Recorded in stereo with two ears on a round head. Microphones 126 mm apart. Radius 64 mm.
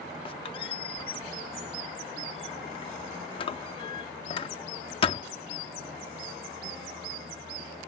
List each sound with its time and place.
0.2 s a squeak: 40° left (ahead or behind)